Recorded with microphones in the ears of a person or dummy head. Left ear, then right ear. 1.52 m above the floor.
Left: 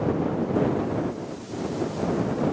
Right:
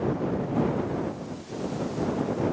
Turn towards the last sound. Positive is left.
No sound to turn to.